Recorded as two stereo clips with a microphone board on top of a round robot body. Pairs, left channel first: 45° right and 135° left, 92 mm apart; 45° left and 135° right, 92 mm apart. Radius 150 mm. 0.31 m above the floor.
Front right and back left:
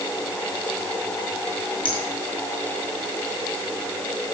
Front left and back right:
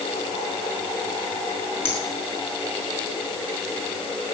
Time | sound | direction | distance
1.9 | a finger snap | 20° right | 5 m